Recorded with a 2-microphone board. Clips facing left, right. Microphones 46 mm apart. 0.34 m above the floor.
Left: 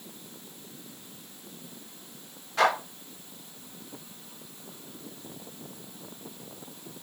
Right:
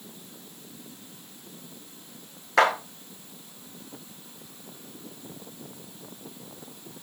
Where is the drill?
I don't hear a drill.